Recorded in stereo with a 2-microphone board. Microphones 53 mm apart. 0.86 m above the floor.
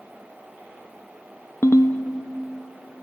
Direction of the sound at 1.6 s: 55° left (ahead or behind).